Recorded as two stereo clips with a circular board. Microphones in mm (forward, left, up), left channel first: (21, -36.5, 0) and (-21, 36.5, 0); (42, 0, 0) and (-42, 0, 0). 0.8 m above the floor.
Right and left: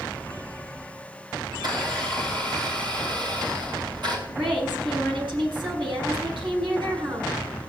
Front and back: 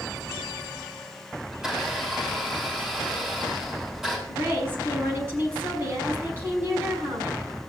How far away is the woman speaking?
About 6 m.